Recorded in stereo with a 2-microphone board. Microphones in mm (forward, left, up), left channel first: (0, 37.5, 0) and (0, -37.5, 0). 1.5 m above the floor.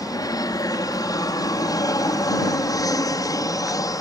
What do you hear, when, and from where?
0.0 s an aircraft: 55° left (ahead or behind)